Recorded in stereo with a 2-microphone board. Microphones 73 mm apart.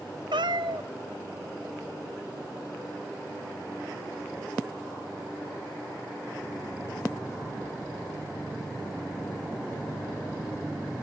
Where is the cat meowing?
85° right, 0.8 m.